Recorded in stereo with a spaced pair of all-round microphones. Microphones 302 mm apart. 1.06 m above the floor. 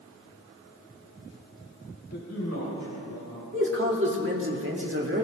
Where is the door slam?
No door slam in this recording.